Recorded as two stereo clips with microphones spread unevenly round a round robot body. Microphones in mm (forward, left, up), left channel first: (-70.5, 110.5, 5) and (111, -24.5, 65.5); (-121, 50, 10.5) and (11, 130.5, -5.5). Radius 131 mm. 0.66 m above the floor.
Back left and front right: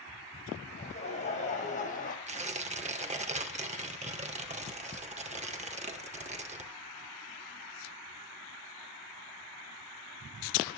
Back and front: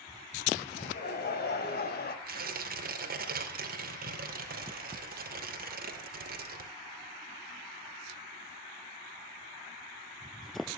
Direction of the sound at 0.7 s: 155° right.